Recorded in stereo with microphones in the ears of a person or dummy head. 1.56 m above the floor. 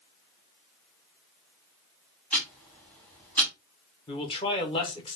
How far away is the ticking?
About 1.3 m.